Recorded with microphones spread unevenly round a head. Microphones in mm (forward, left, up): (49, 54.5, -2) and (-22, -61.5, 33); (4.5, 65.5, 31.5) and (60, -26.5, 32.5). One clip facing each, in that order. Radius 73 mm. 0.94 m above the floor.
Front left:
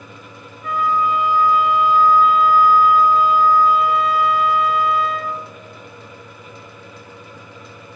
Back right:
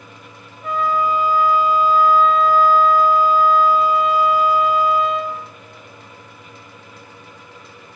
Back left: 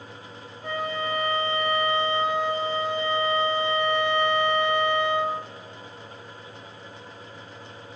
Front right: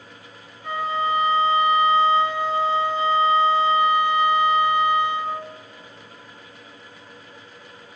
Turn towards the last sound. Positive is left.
turn(degrees=175)